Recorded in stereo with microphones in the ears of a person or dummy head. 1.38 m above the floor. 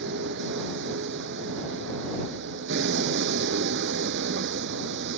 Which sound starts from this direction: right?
A vehicle, at 0.0 s.